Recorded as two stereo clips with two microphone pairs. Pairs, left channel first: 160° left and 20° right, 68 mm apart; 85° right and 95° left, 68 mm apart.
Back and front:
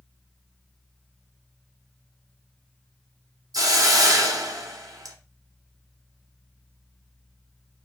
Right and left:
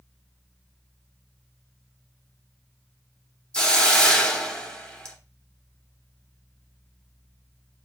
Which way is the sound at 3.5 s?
10° right.